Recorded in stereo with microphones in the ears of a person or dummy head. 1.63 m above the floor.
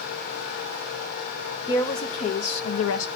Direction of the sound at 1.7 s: 15° left (ahead or behind).